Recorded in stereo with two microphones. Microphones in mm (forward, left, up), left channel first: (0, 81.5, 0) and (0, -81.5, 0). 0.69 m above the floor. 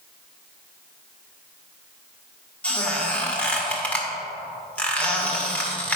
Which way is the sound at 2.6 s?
10° left (ahead or behind).